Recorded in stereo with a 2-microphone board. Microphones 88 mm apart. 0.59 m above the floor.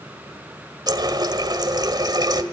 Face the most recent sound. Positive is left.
turn(degrees=-50)  # may be behind; listen again after turning